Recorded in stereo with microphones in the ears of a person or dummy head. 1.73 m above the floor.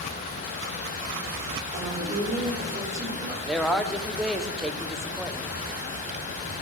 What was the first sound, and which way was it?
A woman speaking, 35° right (ahead or behind).